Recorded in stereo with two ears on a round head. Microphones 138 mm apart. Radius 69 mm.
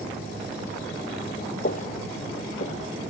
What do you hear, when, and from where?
1.6 s footsteps: 50° left (ahead or behind); by 3.1 s 45° left (ahead or behind)